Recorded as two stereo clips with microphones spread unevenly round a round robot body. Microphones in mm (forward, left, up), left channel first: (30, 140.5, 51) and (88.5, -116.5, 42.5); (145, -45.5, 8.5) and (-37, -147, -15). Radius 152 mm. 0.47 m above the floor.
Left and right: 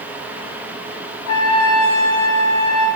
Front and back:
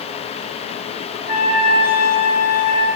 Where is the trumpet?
80° left, 1.5 m.